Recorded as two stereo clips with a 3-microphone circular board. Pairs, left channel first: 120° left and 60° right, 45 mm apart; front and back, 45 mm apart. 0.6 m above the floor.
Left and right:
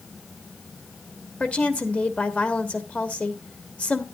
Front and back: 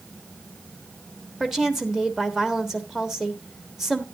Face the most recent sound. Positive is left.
turn(degrees=105)